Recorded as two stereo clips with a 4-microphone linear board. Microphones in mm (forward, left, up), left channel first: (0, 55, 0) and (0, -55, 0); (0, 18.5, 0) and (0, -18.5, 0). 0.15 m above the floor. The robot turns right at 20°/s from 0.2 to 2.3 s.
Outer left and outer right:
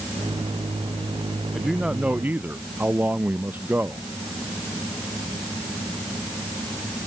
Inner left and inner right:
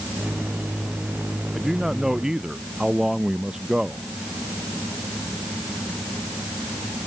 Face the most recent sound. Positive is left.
turn(degrees=-15)  # may be behind; listen again after turning